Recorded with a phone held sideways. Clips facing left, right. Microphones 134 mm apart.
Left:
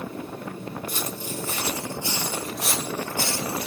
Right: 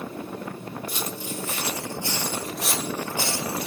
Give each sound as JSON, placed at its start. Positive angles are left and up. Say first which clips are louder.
{"t": 0.9, "sound": "footsteps", "louder": "even", "side_deg": 45, "distance_m": 1.8}